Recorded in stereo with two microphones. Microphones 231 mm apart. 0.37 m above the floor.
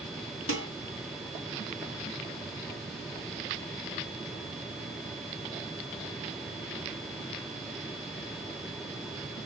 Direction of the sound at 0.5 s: 70° left (ahead or behind).